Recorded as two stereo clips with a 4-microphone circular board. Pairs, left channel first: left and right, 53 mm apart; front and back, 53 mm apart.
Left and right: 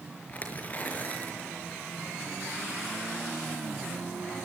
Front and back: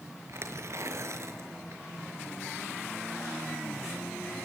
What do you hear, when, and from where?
0.3 s tearing paper: 150° left, 5 m